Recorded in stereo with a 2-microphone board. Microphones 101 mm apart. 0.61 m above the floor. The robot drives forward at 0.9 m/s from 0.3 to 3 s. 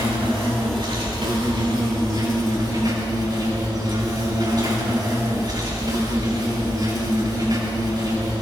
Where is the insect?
60° right (ahead or behind), 4 m; by 8.4 s 40° right (ahead or behind), 5 m.